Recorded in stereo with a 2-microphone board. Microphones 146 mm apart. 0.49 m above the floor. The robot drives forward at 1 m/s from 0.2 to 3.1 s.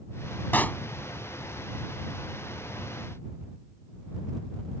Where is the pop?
15° left (ahead or behind); by 0.8 s 10° left (ahead or behind).